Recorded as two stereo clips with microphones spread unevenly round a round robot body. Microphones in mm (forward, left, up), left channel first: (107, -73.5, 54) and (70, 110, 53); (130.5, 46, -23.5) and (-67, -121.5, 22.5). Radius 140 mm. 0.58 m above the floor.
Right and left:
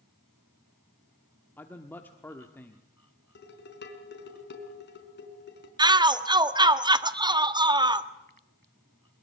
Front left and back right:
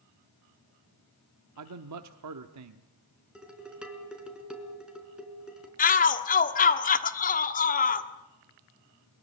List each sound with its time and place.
1.6 s a man speaking: 160° right, 1.0 m
3.4 s dishes clattering: 55° right, 4 m
5.8 s a shout: 50° left, 1.5 m